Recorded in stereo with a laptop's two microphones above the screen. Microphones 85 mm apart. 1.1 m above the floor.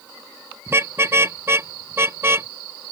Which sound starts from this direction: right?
A car horn, at 0.7 s.